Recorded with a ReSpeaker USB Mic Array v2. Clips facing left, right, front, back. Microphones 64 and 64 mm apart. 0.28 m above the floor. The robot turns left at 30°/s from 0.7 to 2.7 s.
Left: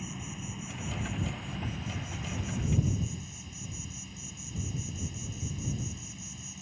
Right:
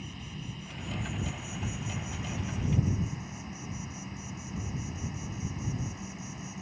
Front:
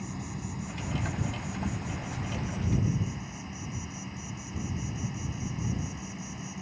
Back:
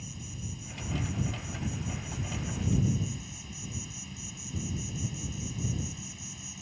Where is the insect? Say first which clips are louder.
Left 2 dB, front 6 dB; 15° left; by 6.6 s 45° right.